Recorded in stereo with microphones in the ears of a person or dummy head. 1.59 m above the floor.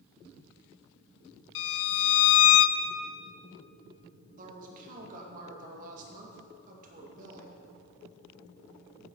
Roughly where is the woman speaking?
Right.